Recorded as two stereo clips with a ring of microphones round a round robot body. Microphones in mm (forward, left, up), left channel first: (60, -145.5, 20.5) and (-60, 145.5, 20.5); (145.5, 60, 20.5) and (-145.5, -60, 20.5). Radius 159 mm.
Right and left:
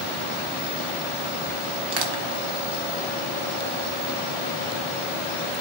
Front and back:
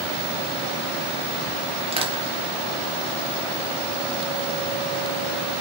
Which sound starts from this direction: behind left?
Crushing, at 1.9 s.